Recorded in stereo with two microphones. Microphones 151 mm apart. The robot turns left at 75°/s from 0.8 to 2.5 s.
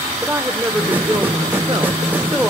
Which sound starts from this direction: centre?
A woman speaking, at 0.2 s.